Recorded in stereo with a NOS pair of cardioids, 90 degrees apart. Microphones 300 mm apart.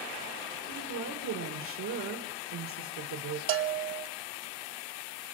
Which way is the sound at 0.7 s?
65° right.